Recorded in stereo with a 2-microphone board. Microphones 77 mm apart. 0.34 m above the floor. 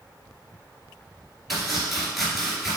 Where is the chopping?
Centre (ahead or behind), 2.5 m.